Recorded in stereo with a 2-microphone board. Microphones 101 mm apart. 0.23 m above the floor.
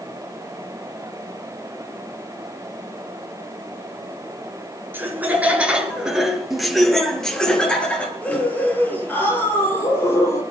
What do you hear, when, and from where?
4.9 s laughter: 20° right (ahead or behind), 4 m; by 10.4 s 25° left (ahead or behind), 7 m